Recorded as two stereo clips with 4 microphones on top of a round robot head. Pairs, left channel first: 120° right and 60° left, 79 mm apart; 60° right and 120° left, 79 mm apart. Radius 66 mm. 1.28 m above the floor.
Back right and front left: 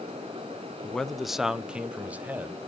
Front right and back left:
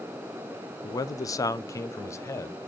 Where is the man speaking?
45° right, 0.7 m; by 2.6 s 5° right, 1.4 m.